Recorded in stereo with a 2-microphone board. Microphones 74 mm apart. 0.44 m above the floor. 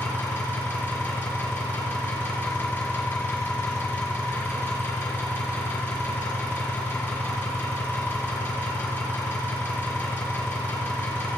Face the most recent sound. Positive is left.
turn(degrees=30)  # may be behind; listen again after turning